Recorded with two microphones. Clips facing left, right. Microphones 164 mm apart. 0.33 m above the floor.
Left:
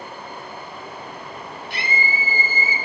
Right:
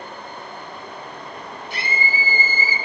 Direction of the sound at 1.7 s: 65° left (ahead or behind).